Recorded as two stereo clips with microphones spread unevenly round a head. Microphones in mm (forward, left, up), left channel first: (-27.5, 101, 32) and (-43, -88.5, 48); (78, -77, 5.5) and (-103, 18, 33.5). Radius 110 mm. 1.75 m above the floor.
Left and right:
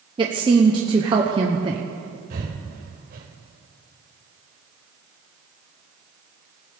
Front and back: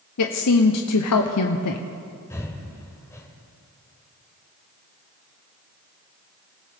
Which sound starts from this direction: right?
Breathing, at 2.3 s.